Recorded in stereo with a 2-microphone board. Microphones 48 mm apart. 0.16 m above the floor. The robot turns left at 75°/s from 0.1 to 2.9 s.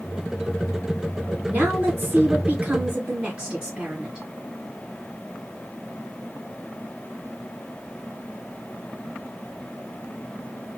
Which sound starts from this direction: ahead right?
A woman speaking, at 1.5 s.